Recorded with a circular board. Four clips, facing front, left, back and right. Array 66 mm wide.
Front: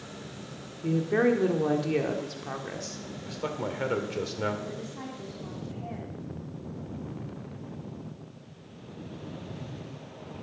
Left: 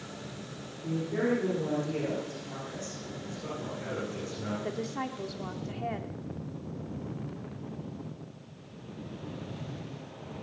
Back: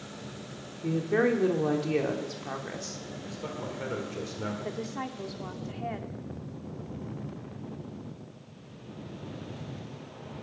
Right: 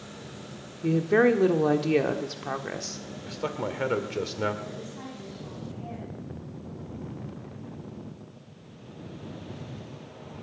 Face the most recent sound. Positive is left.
turn(degrees=125)